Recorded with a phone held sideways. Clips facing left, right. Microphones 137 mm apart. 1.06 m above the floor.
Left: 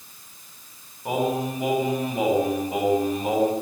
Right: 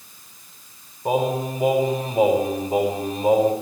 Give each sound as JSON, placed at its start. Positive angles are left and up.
{"t": 1.1, "sound": "singing", "side_deg": -30, "distance_m": 8.5}